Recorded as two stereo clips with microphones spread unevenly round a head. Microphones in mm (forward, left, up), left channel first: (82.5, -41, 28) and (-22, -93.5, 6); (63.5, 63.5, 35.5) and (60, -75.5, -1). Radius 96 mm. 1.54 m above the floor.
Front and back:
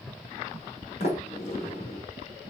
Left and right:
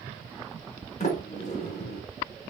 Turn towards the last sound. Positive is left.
turn(degrees=70)